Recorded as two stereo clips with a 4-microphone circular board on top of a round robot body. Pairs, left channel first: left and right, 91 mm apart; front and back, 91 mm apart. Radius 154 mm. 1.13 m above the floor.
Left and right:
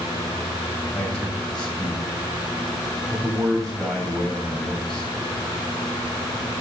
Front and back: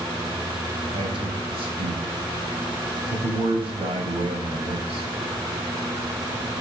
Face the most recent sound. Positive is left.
turn(degrees=175)